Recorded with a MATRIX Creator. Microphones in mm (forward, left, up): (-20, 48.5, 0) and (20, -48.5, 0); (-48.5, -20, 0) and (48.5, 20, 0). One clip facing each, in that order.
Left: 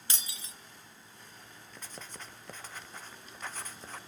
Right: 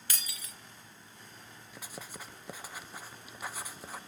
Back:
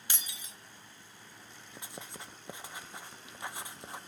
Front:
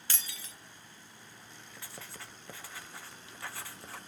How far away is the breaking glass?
About 1.0 m.